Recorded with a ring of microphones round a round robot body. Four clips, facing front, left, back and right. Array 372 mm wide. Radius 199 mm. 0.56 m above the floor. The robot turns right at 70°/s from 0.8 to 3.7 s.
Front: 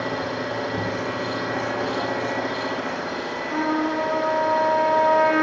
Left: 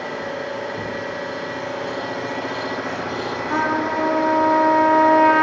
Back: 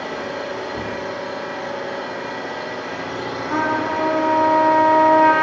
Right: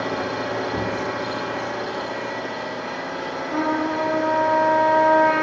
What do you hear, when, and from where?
0.0 s an engine running: 80° right, 1.3 m; by 5.4 s 120° left, 1.3 m
3.5 s a trumpet: 125° left, 1.3 m; by 5.4 s 140° left, 1.3 m